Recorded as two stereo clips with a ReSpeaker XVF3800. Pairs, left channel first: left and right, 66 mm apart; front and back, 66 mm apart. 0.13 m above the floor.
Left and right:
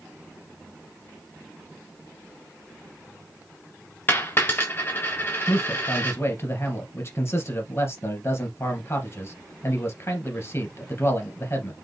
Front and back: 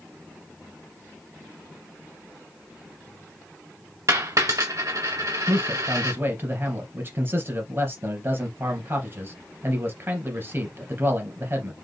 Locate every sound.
4.1 s a dropped coin: 150° left, 3 m
5.5 s a man speaking: 130° left, 2.5 m